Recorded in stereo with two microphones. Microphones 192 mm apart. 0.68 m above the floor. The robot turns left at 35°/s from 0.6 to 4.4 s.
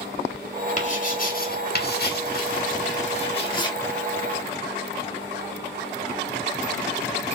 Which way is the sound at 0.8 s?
40° left (ahead or behind).